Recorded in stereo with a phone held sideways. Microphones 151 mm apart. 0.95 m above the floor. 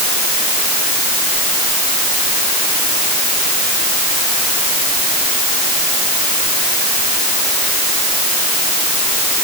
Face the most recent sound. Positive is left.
No sound to turn to.